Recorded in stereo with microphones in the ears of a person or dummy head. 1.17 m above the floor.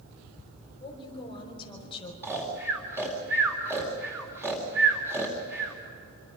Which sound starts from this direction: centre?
Snoring, at 2.2 s.